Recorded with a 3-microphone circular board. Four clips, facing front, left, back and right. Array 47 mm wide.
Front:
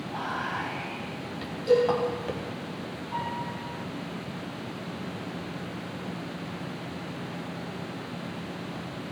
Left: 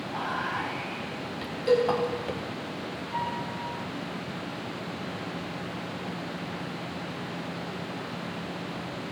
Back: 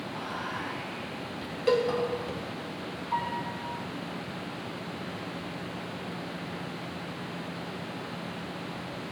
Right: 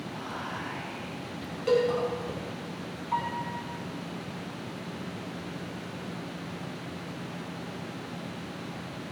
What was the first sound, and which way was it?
Whispering, 50° left.